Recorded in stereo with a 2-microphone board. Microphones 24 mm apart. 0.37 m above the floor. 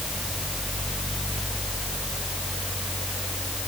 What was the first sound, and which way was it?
Only background noise.